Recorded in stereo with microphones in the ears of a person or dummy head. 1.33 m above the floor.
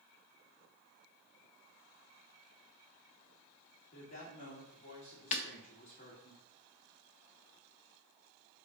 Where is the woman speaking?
45° left (ahead or behind), 2.5 m.